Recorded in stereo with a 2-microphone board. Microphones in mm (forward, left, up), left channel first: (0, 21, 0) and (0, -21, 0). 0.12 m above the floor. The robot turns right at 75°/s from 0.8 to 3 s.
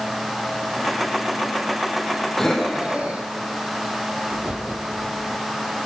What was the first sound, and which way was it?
Breathing, 15° left (ahead or behind).